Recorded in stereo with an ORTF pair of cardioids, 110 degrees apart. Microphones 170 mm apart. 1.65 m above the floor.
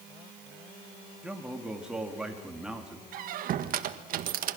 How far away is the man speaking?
About 3.5 m.